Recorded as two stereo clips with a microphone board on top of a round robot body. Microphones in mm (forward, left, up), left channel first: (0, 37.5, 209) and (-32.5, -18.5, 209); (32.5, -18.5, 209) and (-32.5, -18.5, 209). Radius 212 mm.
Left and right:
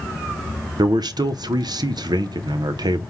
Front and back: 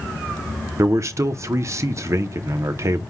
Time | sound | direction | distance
0.8 | a man speaking | 135° right | 0.6 m